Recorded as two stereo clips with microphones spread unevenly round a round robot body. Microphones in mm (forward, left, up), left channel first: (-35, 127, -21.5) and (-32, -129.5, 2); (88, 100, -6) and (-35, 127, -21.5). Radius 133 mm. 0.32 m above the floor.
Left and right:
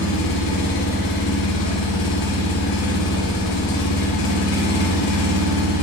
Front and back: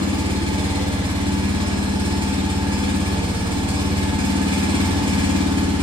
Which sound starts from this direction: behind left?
An engine running, at 0.0 s.